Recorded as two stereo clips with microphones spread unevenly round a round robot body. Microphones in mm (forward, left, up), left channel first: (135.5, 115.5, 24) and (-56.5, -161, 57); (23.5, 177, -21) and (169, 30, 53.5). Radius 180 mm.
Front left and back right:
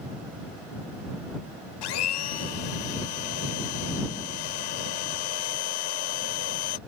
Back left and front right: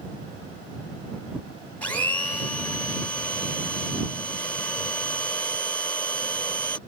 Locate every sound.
1.8 s a blender: 55° left